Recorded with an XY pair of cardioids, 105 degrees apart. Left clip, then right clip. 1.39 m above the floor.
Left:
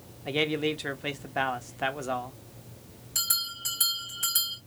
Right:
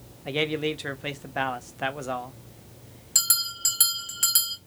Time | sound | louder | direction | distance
0.2 | a man speaking | right 1 dB | 5° right | 0.8 m
3.1 | a bell | right 4 dB | 65° right | 2.5 m